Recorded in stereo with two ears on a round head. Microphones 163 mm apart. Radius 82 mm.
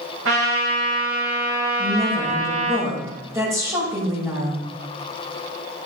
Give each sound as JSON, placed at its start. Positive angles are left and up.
{"t": 0.2, "sound": "a trumpet", "side_deg": -90, "distance_m": 5.5}
{"t": 1.8, "sound": "a woman speaking", "side_deg": -15, "distance_m": 5.5}